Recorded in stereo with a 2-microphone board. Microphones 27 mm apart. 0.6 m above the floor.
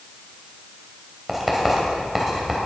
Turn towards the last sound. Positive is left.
turn(degrees=-5)  # may be behind; listen again after turning